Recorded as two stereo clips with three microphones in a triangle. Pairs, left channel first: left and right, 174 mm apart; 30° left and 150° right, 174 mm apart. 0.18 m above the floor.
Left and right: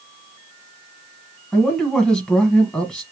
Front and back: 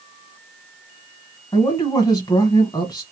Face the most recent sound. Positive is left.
turn(degrees=10)